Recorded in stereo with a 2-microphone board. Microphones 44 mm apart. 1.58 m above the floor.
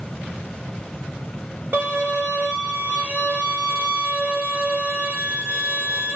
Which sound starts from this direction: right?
A violin, at 1.7 s.